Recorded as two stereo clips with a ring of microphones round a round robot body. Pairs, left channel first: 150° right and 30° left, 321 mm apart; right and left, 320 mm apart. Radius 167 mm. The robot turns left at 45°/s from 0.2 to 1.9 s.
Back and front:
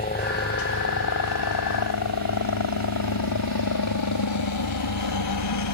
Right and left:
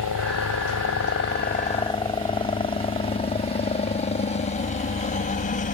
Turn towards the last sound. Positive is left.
turn(degrees=-155)